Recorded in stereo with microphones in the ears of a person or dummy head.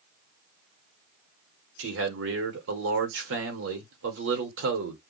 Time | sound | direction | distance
1.8 | a man speaking | 70° right (ahead or behind) | 1.1 m